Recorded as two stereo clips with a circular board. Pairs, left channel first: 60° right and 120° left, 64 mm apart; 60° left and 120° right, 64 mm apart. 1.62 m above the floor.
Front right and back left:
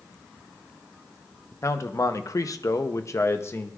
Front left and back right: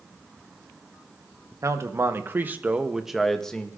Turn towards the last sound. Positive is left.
turn(degrees=-15)